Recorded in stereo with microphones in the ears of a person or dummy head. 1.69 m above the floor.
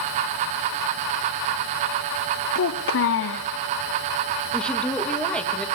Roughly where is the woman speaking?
Centre.